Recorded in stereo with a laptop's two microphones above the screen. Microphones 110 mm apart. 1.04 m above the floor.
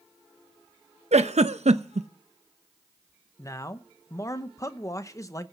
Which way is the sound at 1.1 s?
85° right.